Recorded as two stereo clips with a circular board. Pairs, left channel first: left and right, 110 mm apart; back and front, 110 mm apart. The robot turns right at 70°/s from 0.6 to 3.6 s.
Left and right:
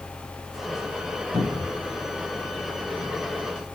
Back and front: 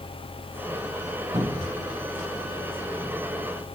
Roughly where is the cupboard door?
Ahead left.